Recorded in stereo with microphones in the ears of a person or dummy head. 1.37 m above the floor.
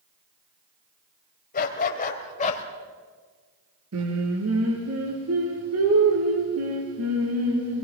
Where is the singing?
80° right, 5.5 m.